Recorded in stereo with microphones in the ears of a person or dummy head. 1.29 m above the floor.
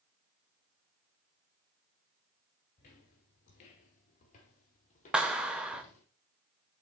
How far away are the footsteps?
About 1.5 m.